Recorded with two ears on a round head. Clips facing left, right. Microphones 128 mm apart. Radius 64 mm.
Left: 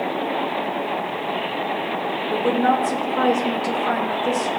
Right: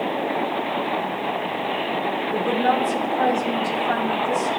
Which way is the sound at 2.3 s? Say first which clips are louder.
Left 3 dB; 80° left.